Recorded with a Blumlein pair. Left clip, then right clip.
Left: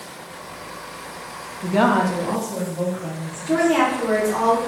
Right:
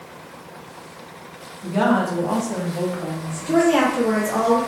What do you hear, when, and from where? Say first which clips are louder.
1.6 s a woman speaking: left 2 dB; 30° left, 1.0 m; by 3.8 s 35° right, 2.5 m
3.5 s a woman speaking: right 1 dB; 5° right, 2 m